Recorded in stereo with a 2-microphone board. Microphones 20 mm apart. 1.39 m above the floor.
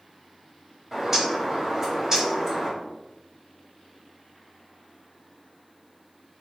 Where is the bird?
20° right (ahead or behind), 4.5 m.